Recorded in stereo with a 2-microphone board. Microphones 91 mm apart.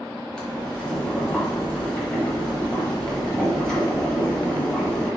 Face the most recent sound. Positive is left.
turn(degrees=10)  # may be behind; listen again after turning